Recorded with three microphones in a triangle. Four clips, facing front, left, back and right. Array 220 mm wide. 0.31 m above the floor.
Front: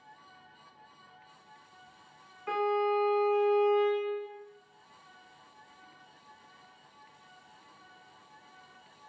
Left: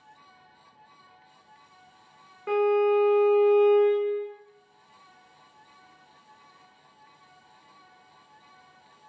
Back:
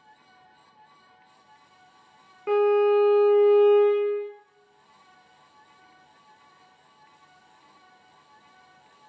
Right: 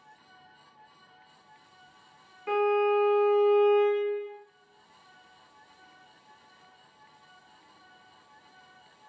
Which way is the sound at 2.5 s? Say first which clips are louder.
Left 3 dB, back 9 dB; 165° left.